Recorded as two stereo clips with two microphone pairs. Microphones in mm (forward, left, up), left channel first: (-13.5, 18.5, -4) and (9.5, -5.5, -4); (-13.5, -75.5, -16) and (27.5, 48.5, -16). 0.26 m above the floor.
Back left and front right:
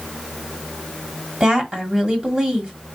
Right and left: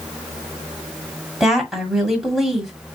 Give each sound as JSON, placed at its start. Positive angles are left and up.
{"t": 1.4, "sound": "a woman speaking", "azimuth_deg": -15, "distance_m": 1.6}